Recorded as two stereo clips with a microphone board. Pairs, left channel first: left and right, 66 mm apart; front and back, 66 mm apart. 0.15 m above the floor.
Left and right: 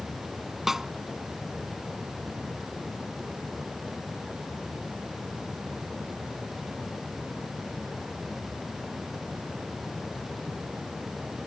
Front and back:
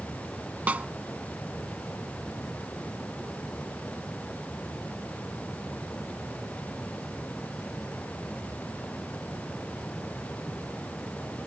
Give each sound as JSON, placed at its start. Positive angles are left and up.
{"t": 0.7, "sound": "a snare drum", "azimuth_deg": -165}